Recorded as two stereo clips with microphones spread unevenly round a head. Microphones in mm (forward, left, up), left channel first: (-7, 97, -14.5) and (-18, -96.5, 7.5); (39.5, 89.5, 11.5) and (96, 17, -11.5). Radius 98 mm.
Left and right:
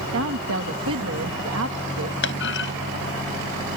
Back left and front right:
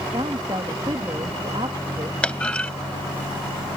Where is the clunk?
55° left.